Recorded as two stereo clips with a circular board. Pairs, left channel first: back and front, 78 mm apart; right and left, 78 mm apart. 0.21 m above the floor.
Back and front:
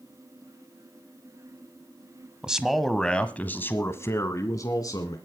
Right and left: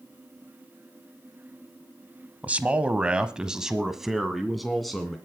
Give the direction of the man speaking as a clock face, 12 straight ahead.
10 o'clock.